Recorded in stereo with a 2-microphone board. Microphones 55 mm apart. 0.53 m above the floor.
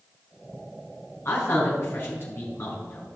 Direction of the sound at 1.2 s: 45° left (ahead or behind).